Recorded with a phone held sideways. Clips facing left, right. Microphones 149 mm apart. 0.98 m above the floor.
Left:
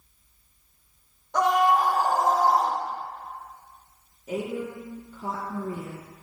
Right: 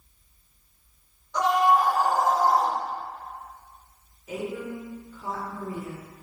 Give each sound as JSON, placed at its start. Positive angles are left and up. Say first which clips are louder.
{"t": 1.3, "sound": "a scream", "louder": "even", "side_deg": 55, "distance_m": 0.9}
{"t": 4.3, "sound": "a woman speaking", "louder": "left 2 dB", "side_deg": 35, "distance_m": 0.8}